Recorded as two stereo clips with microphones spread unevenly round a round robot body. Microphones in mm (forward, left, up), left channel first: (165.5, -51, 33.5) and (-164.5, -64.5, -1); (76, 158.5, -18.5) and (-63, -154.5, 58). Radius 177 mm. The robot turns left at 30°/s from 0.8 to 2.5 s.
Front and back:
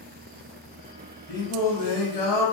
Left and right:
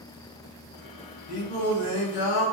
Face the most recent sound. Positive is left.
turn(degrees=60)